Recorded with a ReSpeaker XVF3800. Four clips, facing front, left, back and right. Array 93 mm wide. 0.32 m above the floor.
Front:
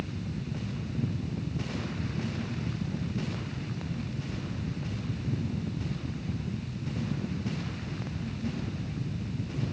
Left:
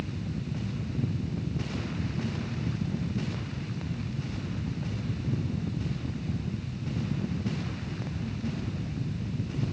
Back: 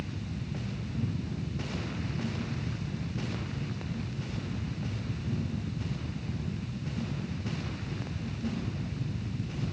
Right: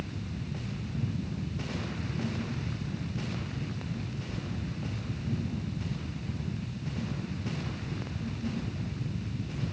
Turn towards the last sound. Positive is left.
No sound to turn to.